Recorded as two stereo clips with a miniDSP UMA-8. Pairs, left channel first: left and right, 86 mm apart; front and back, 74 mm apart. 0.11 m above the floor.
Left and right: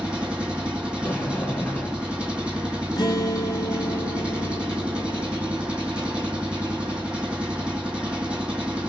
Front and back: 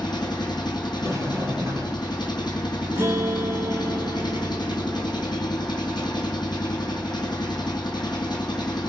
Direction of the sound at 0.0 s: 15° right.